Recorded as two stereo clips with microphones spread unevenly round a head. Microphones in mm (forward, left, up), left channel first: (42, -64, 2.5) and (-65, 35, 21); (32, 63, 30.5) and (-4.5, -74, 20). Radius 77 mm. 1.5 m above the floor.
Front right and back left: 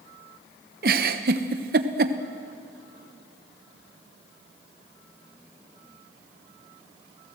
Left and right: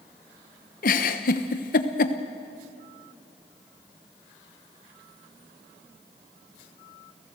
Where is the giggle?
110° left, 1.1 m.